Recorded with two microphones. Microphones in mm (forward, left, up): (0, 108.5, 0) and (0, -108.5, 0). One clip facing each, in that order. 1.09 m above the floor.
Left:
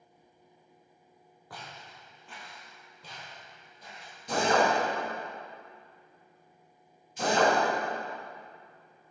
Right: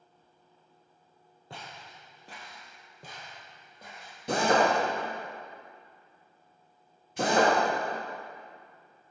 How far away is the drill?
About 1.4 m.